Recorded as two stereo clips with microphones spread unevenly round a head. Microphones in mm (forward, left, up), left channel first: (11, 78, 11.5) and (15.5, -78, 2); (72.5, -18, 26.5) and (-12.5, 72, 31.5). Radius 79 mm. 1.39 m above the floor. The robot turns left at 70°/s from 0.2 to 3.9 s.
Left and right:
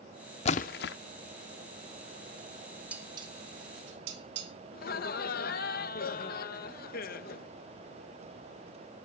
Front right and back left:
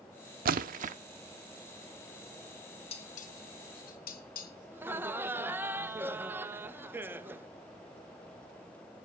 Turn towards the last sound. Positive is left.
turn(degrees=60)